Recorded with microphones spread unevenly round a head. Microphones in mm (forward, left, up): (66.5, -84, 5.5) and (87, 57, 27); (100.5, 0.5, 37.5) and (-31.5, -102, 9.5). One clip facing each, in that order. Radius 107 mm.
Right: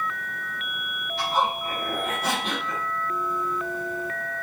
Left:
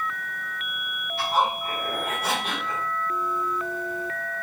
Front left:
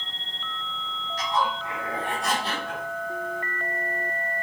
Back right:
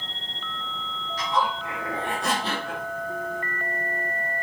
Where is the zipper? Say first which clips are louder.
Left 1 dB, back right 1 dB; 170° right, 2.5 m.